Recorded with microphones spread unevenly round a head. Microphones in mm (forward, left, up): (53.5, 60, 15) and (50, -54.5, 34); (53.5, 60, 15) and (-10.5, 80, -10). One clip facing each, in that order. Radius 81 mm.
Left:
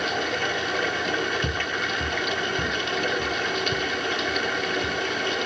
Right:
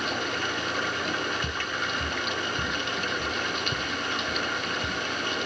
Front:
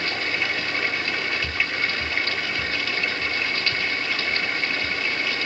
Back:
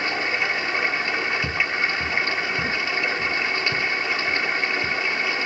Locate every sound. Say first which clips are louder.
0.0 s running water: left 4 dB, back 2 dB; 90° left
1.4 s footsteps: left 4 dB, back 2 dB; 165° left; by 5.0 s 170° right